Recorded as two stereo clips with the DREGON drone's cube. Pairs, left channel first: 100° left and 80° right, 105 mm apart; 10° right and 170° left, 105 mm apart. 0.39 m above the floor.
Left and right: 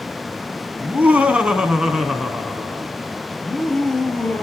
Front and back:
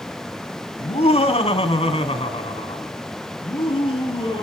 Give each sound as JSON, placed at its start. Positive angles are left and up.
{"t": 0.8, "sound": "laughter", "azimuth_deg": -10, "distance_m": 2.5}